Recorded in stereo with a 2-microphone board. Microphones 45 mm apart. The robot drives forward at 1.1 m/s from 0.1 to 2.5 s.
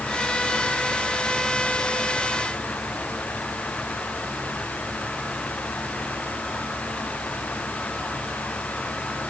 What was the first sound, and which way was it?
Only background noise.